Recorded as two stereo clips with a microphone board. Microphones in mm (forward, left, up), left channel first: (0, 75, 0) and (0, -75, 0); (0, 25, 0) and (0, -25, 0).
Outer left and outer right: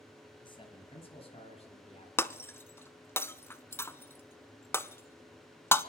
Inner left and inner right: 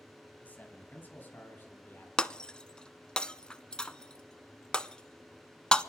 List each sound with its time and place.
0.4 s a man speaking: 30° left (ahead or behind), 3 m; by 2.1 s 45° left (ahead or behind), 3.5 m
2.2 s breaking glass: 15° left (ahead or behind), 0.5 m